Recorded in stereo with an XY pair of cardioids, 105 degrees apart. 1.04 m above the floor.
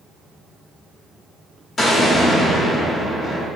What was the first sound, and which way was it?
An explosion, 45° left.